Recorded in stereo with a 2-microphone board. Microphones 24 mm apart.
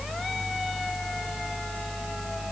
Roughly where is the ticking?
I don't hear ticking.